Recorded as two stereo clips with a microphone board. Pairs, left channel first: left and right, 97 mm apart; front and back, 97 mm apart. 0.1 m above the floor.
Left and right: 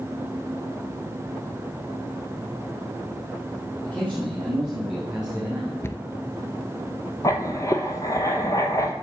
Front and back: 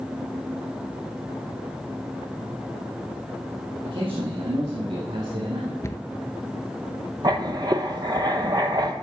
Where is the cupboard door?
40° left, 0.6 m.